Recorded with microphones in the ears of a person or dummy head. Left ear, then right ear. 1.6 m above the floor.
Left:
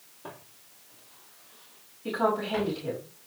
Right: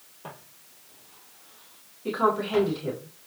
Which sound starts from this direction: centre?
A woman speaking, at 2.0 s.